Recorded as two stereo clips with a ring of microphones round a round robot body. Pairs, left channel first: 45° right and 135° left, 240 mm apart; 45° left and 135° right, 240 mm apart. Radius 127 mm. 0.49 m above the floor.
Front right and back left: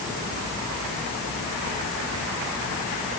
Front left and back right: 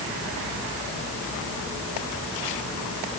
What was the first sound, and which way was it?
Only background noise.